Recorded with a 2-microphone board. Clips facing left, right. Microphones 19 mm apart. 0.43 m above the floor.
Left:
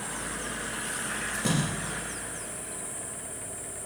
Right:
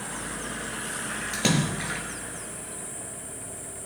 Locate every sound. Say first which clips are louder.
1.3 s a splash: right 5 dB; 80° right, 4 m